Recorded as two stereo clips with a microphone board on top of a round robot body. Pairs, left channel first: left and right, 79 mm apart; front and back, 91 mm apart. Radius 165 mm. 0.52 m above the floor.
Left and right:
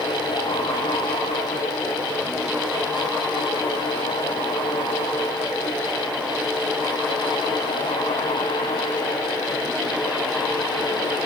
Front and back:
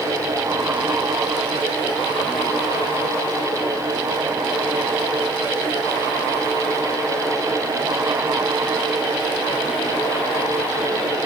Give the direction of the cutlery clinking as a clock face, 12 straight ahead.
I don't hear cutlery clinking.